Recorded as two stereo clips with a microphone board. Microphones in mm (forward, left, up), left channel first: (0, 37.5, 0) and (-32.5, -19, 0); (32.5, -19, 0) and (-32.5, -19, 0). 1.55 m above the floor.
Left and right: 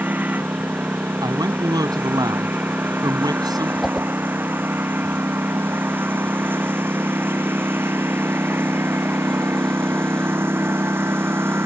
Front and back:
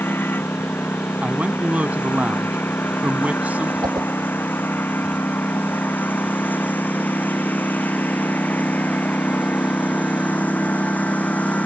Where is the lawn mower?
55° right; by 11.7 s 65° right.